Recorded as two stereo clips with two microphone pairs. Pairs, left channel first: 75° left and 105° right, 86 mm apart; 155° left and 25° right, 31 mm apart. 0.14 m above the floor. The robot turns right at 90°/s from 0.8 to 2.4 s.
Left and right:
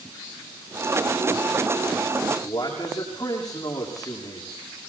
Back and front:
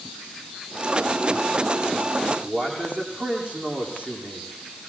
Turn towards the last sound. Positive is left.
turn(degrees=25)